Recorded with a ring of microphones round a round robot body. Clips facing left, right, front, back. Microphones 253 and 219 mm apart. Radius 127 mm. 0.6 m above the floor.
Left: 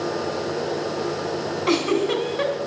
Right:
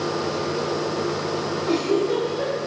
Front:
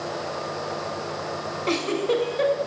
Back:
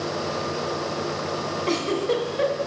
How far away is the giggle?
About 1.9 m.